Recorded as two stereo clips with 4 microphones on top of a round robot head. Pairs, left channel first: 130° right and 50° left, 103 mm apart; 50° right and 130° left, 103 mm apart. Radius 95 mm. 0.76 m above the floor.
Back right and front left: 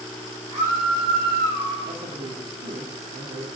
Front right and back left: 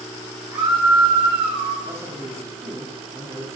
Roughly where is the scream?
Left.